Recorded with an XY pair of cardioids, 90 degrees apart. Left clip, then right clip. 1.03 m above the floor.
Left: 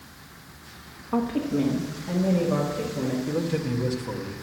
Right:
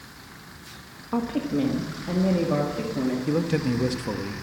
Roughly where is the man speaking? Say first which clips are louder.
Right 2 dB; ahead right.